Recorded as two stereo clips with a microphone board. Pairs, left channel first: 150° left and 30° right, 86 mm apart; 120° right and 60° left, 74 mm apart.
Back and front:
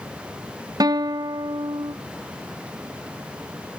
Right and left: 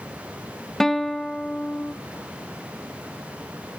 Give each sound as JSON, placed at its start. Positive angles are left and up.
{"t": 0.8, "sound": "a guitar", "azimuth_deg": -35, "distance_m": 1.0}